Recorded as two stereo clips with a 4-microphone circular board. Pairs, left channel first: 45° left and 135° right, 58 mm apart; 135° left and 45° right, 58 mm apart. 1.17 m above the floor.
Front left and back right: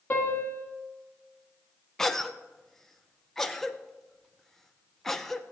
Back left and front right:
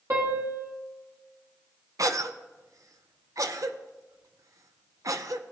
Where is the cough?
40° right, 0.5 m.